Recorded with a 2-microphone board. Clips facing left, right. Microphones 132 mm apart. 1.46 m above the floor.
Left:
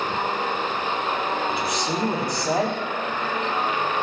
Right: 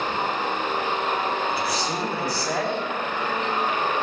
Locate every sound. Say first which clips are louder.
1.5 s a man speaking: left 1 dB; 25° left (ahead or behind), 4.5 m